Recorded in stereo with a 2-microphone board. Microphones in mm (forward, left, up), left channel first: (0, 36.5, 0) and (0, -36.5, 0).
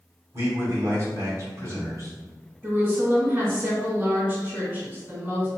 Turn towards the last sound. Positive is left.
turn(degrees=-25)  # may be behind; listen again after turning